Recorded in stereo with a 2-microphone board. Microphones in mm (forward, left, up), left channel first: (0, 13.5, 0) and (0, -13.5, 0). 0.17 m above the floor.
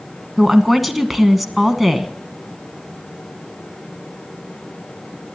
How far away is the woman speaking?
About 1.1 m.